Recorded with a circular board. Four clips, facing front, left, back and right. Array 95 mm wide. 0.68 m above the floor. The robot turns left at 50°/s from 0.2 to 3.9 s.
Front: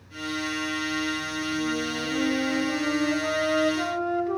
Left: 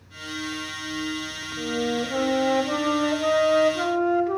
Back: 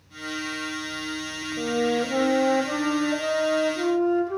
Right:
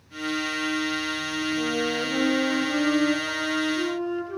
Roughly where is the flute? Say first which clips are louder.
Left 4 dB, back 8 dB; behind.